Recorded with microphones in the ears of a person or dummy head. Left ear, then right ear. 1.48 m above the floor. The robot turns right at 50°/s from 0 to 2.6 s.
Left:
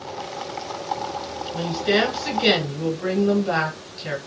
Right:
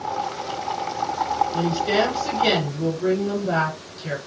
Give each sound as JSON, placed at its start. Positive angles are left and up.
{"t": 1.5, "sound": "a woman speaking", "azimuth_deg": 10, "distance_m": 1.3}